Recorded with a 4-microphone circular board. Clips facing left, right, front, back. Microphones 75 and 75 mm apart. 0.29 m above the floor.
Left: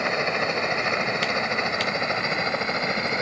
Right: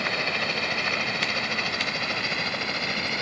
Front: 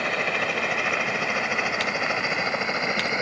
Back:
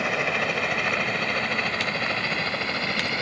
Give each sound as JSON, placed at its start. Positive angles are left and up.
{"t": 0.0, "sound": "a helicopter", "azimuth_deg": 95}